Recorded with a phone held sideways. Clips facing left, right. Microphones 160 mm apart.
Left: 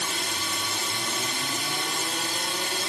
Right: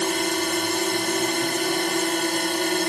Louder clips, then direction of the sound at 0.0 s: Right 10 dB; 55° right (ahead or behind).